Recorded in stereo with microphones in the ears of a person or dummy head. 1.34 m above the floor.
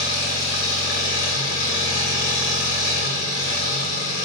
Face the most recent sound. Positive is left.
turn(degrees=65)  # may be behind; listen again after turning